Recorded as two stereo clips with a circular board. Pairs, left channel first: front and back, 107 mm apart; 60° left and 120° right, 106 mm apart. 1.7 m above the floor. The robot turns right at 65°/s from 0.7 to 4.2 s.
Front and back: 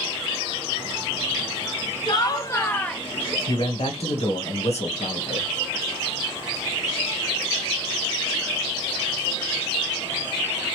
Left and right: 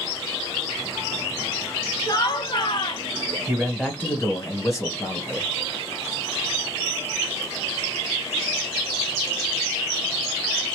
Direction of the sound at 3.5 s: 50° right.